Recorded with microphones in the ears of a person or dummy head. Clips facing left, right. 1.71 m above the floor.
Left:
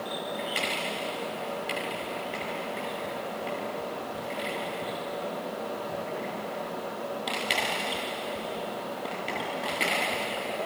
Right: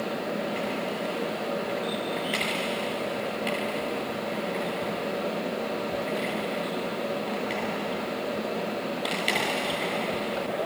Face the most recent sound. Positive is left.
No sound to turn to.